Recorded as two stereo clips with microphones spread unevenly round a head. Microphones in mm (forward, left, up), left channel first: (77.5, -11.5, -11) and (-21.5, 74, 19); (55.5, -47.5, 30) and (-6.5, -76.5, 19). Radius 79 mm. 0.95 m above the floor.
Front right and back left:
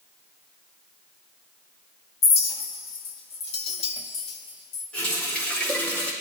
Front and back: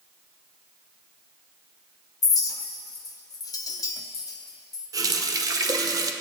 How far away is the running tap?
About 0.9 m.